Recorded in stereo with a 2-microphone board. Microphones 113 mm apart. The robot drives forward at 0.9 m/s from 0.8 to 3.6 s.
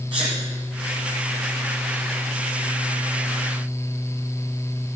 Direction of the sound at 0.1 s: 60° right (ahead or behind).